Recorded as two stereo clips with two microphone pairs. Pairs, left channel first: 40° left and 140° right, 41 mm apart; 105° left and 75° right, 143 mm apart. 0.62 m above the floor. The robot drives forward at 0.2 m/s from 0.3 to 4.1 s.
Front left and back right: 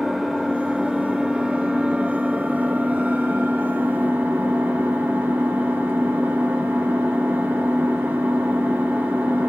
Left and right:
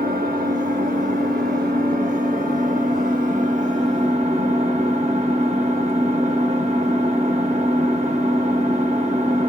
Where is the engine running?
60° right, 0.8 m; by 9.5 s 115° right, 0.8 m.